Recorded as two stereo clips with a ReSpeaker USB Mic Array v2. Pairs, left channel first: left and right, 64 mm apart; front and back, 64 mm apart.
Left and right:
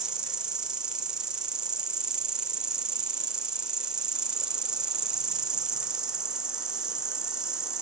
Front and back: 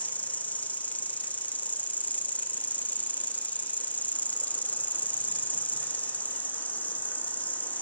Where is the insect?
25° right, 1.1 m.